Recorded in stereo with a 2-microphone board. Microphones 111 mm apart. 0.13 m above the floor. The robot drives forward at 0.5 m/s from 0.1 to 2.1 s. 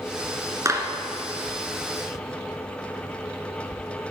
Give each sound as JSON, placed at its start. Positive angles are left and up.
{"t": 0.7, "sound": "a clap", "side_deg": -30, "distance_m": 1.6}